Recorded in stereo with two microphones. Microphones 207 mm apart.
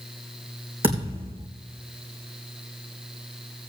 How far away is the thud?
About 4 m.